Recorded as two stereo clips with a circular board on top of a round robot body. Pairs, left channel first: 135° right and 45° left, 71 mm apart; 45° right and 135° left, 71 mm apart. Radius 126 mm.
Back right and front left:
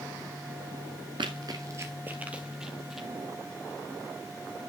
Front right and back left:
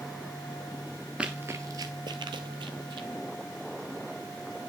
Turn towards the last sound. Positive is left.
turn(degrees=135)